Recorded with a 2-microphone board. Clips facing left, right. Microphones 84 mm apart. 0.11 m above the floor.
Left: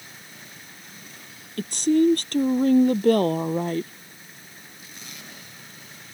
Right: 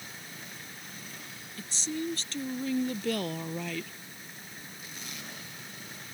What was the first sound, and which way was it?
A woman speaking, 65° left (ahead or behind).